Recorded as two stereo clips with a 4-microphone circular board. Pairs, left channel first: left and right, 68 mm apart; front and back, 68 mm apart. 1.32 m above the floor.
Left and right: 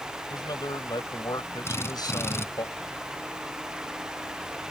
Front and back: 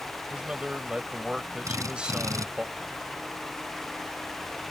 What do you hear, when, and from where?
0.3 s a man speaking: 105° left
1.6 s a drill: 140° left